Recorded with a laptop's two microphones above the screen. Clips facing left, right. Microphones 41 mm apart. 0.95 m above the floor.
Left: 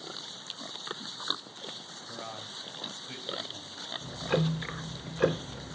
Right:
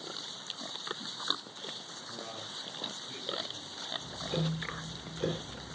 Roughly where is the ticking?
Left.